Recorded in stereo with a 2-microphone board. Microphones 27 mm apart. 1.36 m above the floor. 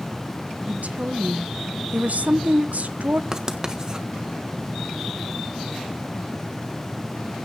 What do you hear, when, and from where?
0.7 s a woman speaking: 65° right (ahead or behind), 1.3 m
3.3 s writing: 25° right (ahead or behind), 1.5 m